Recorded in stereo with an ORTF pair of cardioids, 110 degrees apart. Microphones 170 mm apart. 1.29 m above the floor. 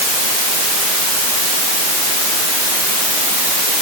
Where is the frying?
No frying in this recording.